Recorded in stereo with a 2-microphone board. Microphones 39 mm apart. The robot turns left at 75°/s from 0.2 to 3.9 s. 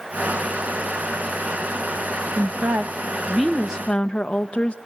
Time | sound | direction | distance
2.4 | a woman speaking | 90° right | 0.6 m